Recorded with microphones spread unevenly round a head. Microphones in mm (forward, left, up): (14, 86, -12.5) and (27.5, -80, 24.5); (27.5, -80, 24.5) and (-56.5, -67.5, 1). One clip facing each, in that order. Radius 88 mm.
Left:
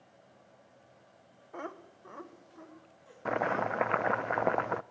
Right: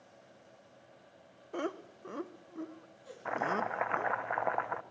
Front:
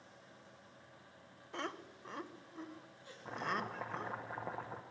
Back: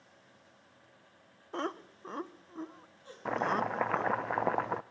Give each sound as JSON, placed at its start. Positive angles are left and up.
{"t": 1.5, "sound": "laughter", "azimuth_deg": -140, "distance_m": 1.2}
{"t": 3.2, "sound": "chopping", "azimuth_deg": 140, "distance_m": 0.5}